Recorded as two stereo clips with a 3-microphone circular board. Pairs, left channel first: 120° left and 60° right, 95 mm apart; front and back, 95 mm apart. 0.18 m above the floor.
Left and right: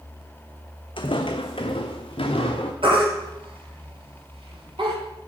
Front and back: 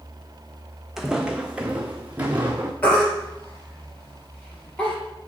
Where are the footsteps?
95° left, 0.8 m; by 2.7 s 110° left, 1.6 m.